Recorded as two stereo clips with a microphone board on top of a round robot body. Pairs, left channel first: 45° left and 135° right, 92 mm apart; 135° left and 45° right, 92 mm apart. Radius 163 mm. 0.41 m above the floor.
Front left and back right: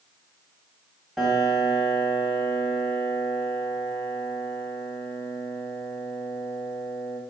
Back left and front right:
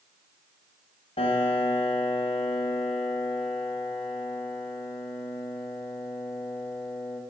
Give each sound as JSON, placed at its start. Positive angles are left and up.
{"t": 1.2, "sound": "a piano", "azimuth_deg": 135, "distance_m": 1.6}